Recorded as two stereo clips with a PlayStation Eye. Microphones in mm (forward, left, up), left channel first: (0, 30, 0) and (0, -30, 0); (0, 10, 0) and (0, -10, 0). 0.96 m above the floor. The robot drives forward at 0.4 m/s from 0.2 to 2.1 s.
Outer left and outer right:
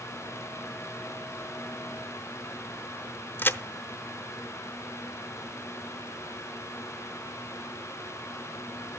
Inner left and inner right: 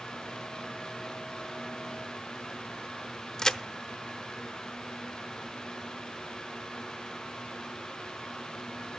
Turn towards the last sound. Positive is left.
turn(degrees=35)  # may be behind; listen again after turning